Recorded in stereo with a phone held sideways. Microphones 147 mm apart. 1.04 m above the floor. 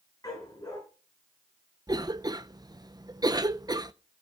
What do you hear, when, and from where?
0.2 s a dog barking: 25° left (ahead or behind), 6.5 m
1.9 s a cough: 30° right (ahead or behind), 0.6 m